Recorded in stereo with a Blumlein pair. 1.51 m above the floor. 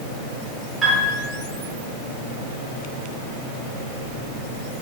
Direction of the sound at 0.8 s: 10° right.